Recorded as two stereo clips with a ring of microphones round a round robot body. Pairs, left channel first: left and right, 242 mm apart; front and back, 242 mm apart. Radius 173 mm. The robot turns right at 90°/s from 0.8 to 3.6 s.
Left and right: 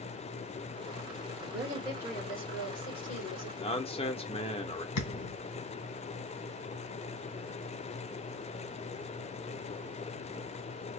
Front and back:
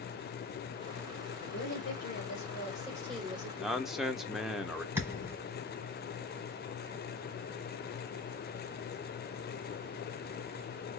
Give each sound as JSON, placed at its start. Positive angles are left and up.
{"t": 1.4, "sound": "a woman speaking", "azimuth_deg": -65, "distance_m": 1.8}
{"t": 3.6, "sound": "a man speaking", "azimuth_deg": 95, "distance_m": 0.7}
{"t": 5.0, "sound": "a thud", "azimuth_deg": 100, "distance_m": 1.9}